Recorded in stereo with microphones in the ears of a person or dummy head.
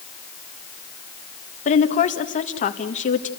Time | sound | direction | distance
1.6 | a woman speaking | 40° left (ahead or behind) | 1.6 m